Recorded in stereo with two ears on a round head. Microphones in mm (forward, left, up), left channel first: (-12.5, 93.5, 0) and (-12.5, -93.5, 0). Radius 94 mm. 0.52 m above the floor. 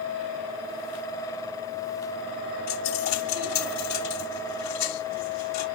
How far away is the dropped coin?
About 3.5 m.